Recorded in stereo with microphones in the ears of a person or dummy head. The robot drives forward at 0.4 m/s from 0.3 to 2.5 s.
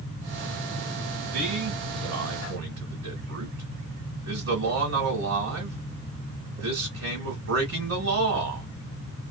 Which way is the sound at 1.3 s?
60° right (ahead or behind).